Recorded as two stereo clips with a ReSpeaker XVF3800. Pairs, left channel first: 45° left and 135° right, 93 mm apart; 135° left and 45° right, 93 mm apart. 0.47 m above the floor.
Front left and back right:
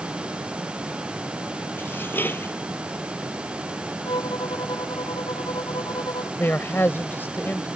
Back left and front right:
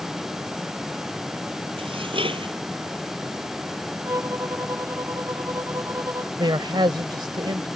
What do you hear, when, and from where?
1.8 s dishes clattering: 25° right
4.0 s a violin: 15° left
6.4 s a man speaking: 20° right